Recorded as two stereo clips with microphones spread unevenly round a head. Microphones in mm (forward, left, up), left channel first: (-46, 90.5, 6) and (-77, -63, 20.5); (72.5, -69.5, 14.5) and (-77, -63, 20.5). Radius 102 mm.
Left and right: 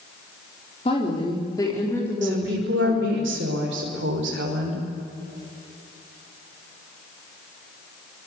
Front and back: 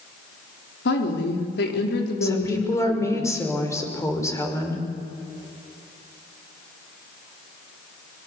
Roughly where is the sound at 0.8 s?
Ahead.